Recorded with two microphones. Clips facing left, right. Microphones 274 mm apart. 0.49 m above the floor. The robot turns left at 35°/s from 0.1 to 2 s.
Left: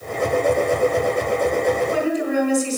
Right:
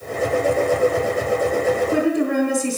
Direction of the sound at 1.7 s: 55° right (ahead or behind).